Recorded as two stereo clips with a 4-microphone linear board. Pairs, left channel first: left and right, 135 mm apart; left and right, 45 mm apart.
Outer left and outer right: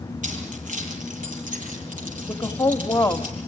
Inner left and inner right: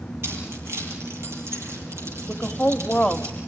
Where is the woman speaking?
20° left (ahead or behind), 1.2 m.